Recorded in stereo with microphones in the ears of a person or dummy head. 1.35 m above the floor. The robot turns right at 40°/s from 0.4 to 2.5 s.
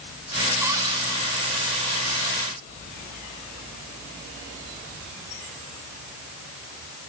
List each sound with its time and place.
0.6 s a cupboard door: 10° right (ahead or behind), 2 m; by 1.0 s 30° right (ahead or behind), 2 m